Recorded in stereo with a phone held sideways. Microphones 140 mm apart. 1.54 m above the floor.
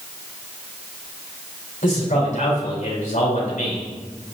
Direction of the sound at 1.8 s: 70° left (ahead or behind).